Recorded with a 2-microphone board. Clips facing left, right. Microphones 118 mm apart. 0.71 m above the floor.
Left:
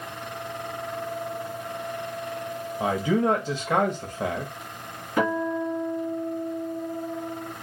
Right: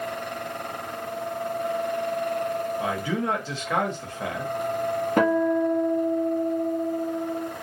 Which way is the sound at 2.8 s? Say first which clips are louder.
Left 4 dB; 20° left (ahead or behind).